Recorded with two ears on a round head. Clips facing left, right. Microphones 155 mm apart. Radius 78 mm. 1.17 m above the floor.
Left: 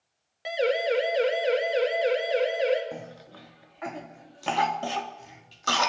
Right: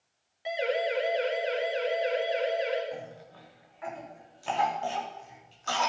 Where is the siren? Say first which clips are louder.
Left 4 dB; 75° left (ahead or behind), 5 m.